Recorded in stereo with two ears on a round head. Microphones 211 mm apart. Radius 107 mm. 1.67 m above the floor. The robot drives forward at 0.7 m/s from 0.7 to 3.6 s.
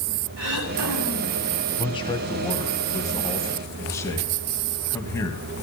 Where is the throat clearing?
70° right (ahead or behind), 4.5 m; by 1.4 s 75° right (ahead or behind), 4 m.